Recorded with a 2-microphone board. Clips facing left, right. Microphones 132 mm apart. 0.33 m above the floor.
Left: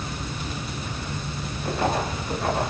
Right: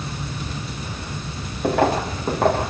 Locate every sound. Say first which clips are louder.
1.6 s footsteps: right 6 dB; 80° right, 8 m; by 2.7 s 85° right, 8.5 m